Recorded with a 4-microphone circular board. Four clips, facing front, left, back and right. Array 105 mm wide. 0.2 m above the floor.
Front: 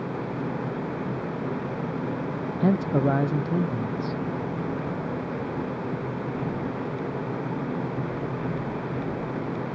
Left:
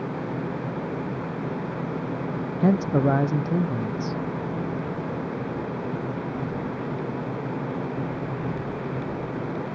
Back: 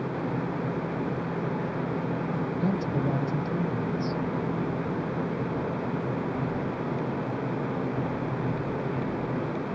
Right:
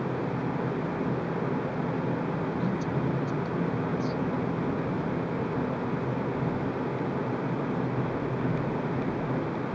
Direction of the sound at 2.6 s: 60° left.